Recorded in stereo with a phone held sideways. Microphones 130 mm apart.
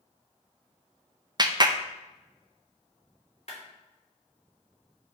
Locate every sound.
1.4 s a clap: 35° right (ahead or behind), 0.6 m
3.5 s a clap: 55° left (ahead or behind), 3 m